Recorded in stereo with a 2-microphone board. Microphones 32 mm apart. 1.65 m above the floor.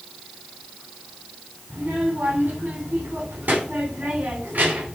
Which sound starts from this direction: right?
A child speaking, at 1.7 s.